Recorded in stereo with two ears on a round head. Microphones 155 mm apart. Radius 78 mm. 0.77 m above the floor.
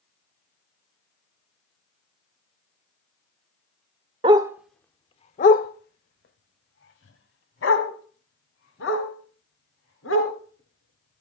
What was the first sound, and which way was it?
A dog barking, 30° right (ahead or behind).